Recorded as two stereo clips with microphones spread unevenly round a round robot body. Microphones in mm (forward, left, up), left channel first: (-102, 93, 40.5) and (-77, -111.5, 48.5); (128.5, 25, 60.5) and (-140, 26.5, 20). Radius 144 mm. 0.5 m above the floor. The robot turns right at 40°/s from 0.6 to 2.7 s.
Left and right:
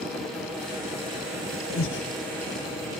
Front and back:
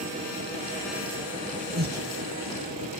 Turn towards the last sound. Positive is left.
turn(degrees=160)